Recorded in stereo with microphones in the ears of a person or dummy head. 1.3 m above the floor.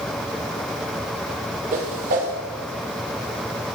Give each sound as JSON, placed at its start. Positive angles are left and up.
{"t": 1.7, "sound": "a whoosh", "side_deg": -45, "distance_m": 1.4}